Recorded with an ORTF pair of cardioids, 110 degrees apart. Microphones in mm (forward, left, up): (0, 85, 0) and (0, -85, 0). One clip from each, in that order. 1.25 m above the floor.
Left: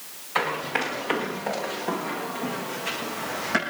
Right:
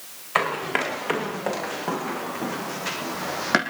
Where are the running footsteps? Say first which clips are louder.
Right 2 dB; 45° right, 6.5 m; by 3.6 s 55° right, 3.5 m.